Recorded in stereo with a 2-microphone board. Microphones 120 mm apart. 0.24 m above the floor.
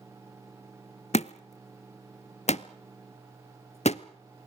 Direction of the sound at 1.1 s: 70° left (ahead or behind).